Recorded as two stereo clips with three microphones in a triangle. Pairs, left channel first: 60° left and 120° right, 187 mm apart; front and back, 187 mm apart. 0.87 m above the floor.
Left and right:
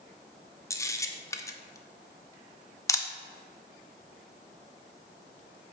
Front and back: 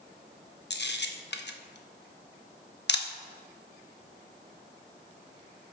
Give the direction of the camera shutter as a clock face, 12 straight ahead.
1 o'clock.